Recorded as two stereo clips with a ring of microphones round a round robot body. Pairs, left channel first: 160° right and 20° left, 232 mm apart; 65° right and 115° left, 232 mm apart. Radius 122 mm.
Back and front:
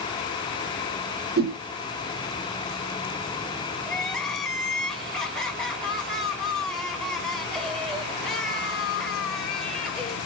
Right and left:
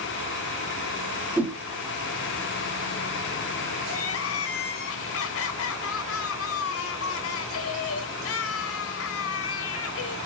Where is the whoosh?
30° left, 0.6 m.